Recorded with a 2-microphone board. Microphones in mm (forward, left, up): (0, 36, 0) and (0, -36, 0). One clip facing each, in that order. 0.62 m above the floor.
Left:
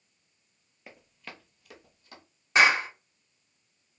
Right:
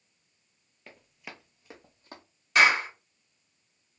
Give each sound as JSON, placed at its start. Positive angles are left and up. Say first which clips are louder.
{"t": 0.9, "sound": "running footsteps", "louder": "even", "side_deg": 10, "distance_m": 0.7}
{"t": 2.5, "sound": "a clap", "louder": "even", "side_deg": 25, "distance_m": 1.2}